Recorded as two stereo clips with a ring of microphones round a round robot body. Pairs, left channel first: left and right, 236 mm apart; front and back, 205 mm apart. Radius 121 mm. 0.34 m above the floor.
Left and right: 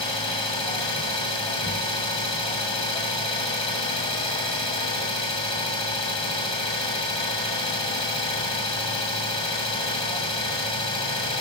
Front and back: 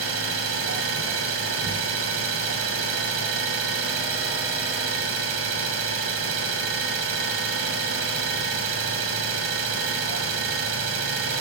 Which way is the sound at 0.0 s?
160° left.